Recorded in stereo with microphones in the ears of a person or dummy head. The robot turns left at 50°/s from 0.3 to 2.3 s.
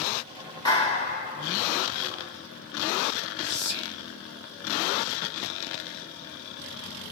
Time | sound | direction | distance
0.7 | a clap | 155° left | 1.8 m
3.4 | whispering | 75° left (ahead or behind) | 1.6 m